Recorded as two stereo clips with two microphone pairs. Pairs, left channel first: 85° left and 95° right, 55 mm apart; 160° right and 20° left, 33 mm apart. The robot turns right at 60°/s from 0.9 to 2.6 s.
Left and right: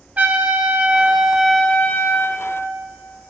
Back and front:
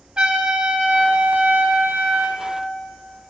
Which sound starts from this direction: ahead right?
A trumpet, at 0.2 s.